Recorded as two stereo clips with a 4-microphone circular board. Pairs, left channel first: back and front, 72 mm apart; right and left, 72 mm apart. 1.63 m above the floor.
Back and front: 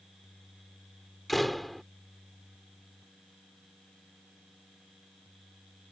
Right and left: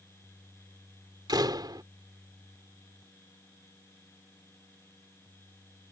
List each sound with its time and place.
1.3 s a door slam: 90° left